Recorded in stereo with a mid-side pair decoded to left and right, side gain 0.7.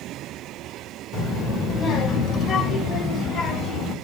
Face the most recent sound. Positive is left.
turn(degrees=35)